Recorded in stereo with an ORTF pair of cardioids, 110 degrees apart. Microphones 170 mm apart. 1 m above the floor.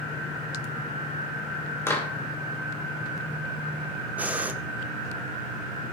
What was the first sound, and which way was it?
A clap, 15° left.